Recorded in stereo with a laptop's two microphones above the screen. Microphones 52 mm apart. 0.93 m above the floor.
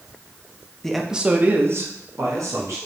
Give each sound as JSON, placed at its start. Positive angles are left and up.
{"t": 0.8, "sound": "a man speaking", "side_deg": 10, "distance_m": 0.5}